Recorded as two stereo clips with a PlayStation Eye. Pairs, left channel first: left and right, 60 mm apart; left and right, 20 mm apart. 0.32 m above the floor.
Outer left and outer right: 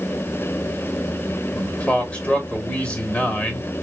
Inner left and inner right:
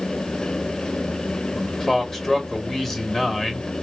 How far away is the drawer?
No drawer in this recording.